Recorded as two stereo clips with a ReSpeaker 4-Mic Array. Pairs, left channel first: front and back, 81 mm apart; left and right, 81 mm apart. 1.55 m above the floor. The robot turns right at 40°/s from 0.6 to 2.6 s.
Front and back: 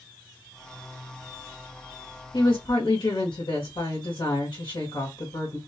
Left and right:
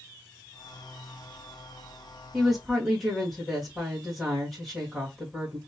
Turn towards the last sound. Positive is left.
turn(degrees=5)